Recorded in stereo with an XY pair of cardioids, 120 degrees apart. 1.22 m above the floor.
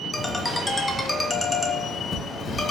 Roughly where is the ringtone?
Ahead.